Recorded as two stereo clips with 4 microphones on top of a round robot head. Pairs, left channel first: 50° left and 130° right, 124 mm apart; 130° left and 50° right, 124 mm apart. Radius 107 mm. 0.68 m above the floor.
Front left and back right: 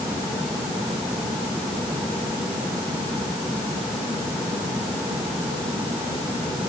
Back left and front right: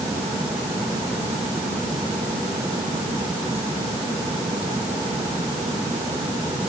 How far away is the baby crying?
I don't hear a baby crying.